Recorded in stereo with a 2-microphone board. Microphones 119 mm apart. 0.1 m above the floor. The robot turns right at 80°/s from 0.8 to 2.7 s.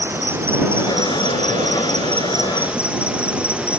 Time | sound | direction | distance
0.0 | an insect | 160° right | ?